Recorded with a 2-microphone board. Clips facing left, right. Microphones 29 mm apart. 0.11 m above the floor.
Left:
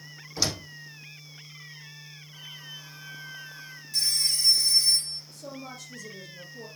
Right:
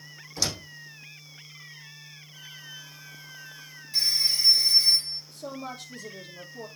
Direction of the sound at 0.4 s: 10° left (ahead or behind).